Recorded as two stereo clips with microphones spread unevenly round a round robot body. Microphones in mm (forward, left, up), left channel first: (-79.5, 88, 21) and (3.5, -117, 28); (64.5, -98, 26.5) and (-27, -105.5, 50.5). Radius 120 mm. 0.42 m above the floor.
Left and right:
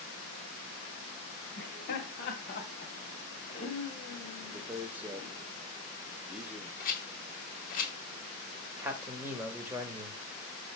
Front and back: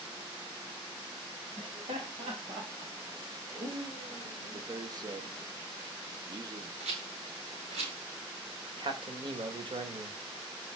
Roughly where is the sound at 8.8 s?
Behind right.